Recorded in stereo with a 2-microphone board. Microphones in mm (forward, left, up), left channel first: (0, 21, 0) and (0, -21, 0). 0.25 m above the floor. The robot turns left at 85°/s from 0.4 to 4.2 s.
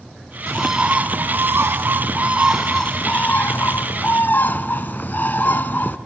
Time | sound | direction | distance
0.5 | a bird | 10° left | 0.6 m